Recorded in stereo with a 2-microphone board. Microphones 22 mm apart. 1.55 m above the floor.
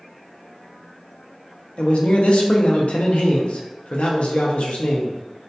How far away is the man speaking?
About 0.5 m.